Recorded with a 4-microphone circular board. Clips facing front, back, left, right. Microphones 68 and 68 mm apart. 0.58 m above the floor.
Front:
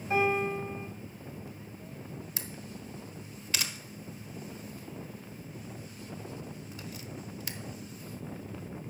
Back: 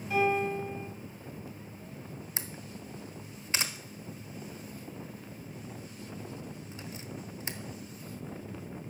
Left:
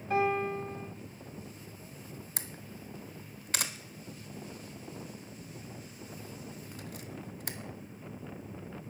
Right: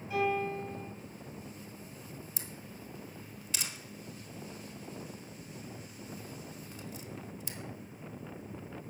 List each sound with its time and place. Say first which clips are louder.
0.1 s a piano: even, left 2 dB; 55° left, 2.5 m
2.4 s a camera shutter: even, left 1 dB; 120° left, 0.9 m